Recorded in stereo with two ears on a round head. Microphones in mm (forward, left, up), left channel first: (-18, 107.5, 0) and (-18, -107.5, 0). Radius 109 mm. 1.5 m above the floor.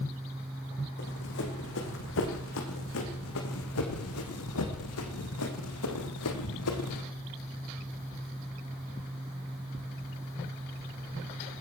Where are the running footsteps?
45° left (ahead or behind), 5 m; by 7.0 s 70° left (ahead or behind), 4.5 m.